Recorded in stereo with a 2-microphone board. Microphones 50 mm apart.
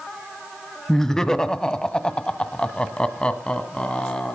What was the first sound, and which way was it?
Laughter, 10° left (ahead or behind).